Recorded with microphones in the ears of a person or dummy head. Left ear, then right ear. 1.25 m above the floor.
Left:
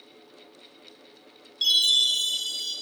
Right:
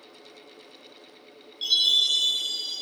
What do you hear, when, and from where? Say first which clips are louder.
1.6 s a chime: left 1 dB; 50° left (ahead or behind), 1.9 m